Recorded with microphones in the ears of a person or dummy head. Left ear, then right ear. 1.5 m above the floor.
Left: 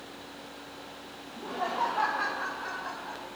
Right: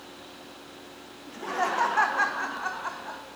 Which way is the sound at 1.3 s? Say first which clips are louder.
Right 5 dB; 70° right (ahead or behind).